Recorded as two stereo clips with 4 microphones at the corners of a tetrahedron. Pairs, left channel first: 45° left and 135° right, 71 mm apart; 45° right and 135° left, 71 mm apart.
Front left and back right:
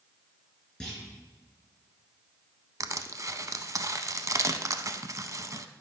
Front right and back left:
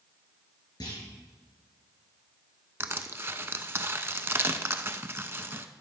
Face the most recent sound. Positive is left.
turn(degrees=-170)